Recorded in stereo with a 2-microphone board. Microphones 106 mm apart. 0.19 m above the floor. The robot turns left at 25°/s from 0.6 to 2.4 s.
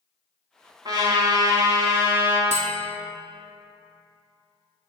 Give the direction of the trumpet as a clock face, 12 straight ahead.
4 o'clock.